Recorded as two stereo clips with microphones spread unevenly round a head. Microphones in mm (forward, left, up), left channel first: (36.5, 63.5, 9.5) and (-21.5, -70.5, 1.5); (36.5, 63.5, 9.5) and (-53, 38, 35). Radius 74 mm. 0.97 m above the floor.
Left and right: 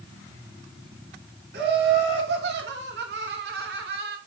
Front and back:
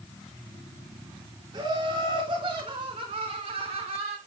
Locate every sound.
1.5 s laughter: 100° right, 3 m; by 4.2 s 130° right, 2.0 m